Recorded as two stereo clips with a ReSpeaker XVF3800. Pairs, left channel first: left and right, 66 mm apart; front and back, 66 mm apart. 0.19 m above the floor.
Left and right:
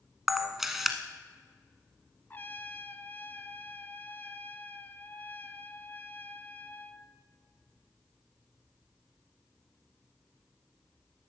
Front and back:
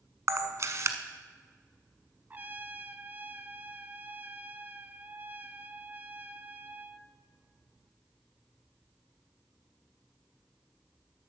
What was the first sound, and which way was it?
A camera shutter, 175° right.